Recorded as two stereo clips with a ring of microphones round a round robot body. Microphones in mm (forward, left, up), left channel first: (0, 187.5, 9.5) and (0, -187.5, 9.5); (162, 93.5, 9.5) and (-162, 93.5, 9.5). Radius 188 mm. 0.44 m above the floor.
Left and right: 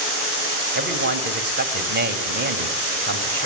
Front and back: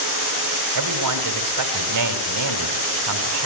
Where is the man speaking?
150° right, 3 m.